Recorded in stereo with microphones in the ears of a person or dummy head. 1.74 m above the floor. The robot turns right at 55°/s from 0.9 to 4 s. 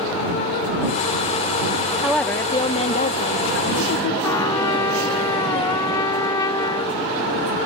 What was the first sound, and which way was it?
A woman speaking, 5° right.